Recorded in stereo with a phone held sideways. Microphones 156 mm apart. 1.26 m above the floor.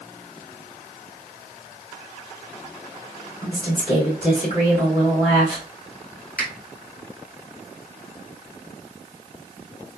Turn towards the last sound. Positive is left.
turn(degrees=70)  # may be behind; listen again after turning